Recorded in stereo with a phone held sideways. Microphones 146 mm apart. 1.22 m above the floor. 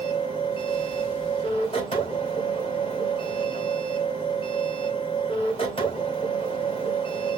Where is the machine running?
40° left (ahead or behind), 2 m.